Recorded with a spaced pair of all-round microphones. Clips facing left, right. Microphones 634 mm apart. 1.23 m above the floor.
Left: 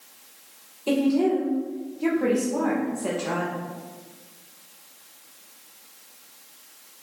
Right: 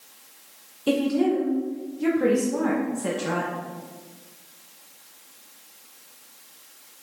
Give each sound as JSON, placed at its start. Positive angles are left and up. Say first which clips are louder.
{"t": 0.9, "sound": "a woman speaking", "louder": "left 1 dB", "side_deg": -40, "distance_m": 1.5}